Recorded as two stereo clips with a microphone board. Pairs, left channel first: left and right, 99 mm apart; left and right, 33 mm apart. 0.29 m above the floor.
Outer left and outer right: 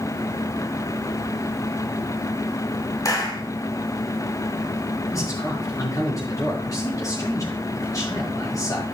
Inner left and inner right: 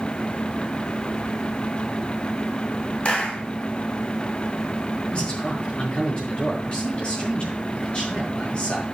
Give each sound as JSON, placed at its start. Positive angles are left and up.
{"t": 3.0, "sound": "a clap", "side_deg": 40, "distance_m": 1.7}
{"t": 5.1, "sound": "a man speaking", "side_deg": 35, "distance_m": 4.0}